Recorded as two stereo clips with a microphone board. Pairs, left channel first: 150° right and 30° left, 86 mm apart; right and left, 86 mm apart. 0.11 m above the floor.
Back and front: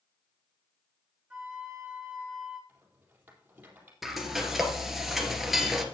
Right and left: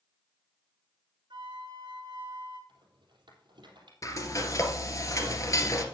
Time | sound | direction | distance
1.3 | a flute | 110° left | 4 m
2.7 | a rattle | 95° left | 3.5 m
4.0 | frying | 60° right | 1.9 m